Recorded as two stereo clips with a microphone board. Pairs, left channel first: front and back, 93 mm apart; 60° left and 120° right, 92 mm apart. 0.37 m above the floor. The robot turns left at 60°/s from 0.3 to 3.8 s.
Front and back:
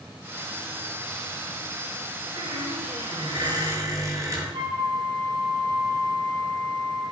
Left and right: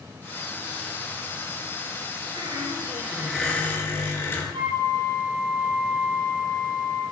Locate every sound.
2.4 s a squeak: 150° right, 4 m; by 4.4 s 125° left, 4 m
4.5 s a flute: 150° right, 6 m